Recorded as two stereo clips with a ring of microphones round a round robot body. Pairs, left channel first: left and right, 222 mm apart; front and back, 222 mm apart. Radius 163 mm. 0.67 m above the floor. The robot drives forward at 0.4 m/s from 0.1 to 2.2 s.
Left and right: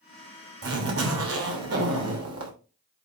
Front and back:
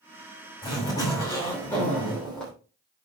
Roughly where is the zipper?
Right.